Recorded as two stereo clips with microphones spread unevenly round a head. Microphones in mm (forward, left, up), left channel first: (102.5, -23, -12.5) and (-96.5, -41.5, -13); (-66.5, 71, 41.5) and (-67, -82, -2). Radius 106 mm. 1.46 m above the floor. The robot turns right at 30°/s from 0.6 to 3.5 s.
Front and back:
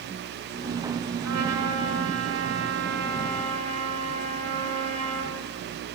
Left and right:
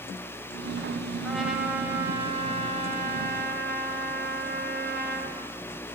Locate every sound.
1.2 s a trumpet: 175° left, 5.5 m; by 5.4 s 120° right, 5.5 m